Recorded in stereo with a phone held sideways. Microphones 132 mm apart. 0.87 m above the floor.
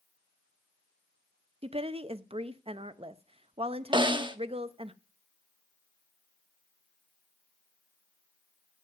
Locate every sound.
1.6 s a woman speaking: 50° right (ahead or behind), 0.6 m
3.9 s a snare drum: 35° right (ahead or behind), 0.6 m